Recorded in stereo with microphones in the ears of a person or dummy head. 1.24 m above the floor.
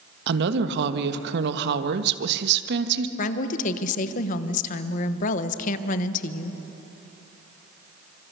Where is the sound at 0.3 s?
65° right (ahead or behind), 1.3 m.